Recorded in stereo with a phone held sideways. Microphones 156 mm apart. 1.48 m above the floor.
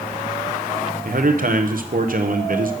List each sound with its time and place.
1.1 s a man speaking: 65° right (ahead or behind), 0.8 m